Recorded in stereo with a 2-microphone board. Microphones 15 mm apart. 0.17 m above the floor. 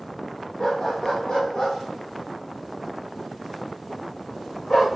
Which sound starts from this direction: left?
A dog barking, at 0.6 s.